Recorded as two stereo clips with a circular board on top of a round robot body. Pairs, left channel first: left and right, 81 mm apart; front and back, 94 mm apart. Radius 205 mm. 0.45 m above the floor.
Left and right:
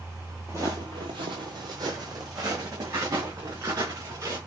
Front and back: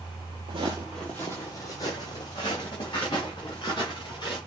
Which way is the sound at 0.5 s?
165° right.